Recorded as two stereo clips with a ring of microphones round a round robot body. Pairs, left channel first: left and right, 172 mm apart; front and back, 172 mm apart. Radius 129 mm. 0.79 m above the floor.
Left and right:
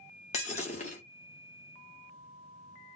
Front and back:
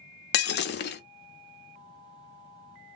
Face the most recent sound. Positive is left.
turn(degrees=25)